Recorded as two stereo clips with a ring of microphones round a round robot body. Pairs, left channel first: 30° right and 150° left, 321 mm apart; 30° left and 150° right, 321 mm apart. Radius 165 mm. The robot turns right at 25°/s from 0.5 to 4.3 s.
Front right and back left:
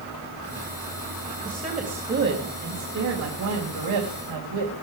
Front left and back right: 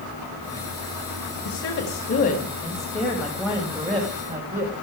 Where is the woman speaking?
75° left, 3.5 m; by 4.7 s 145° left, 3.5 m.